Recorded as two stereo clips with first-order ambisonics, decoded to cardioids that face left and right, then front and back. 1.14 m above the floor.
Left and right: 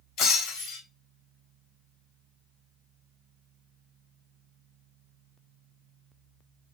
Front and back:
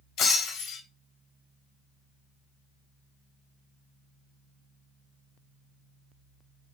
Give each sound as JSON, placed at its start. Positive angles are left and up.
{"t": 0.2, "sound": "breaking glass", "azimuth_deg": 50, "distance_m": 3.0}